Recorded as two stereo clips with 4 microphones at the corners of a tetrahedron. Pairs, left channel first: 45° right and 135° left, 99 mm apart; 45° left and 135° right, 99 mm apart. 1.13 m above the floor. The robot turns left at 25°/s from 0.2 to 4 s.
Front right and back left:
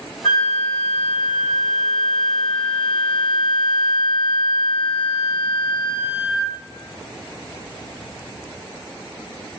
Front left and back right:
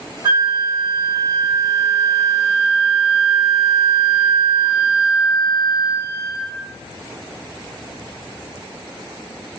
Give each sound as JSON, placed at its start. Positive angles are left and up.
{"t": 0.2, "sound": "a flute", "azimuth_deg": -95, "distance_m": 1.8}